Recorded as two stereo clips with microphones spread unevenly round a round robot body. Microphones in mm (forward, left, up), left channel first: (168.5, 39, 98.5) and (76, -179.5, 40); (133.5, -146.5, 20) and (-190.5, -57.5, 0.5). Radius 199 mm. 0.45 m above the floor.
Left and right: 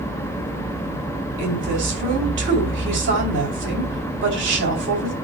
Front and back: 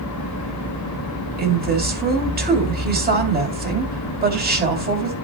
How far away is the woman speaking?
About 3 m.